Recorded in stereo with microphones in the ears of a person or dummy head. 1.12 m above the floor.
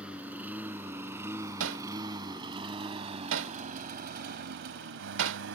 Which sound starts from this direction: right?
Hammering, at 1.6 s.